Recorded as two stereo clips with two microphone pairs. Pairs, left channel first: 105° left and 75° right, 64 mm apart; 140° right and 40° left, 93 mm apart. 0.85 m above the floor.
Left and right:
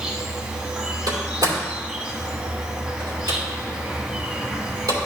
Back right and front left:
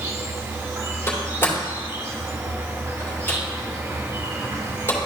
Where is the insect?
5° right, 0.9 m.